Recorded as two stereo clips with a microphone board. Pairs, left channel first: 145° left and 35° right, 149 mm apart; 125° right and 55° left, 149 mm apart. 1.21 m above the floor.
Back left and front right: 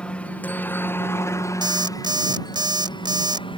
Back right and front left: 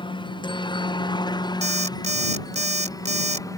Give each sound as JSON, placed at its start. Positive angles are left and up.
{"t": 0.0, "sound": "a helicopter", "azimuth_deg": -140}
{"t": 1.6, "sound": "an alarm clock", "azimuth_deg": 25}